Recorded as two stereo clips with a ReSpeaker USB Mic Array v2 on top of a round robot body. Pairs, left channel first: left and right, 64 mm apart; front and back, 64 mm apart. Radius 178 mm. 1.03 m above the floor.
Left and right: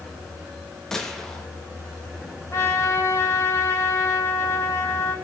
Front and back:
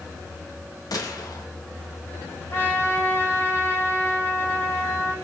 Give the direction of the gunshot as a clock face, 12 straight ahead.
12 o'clock.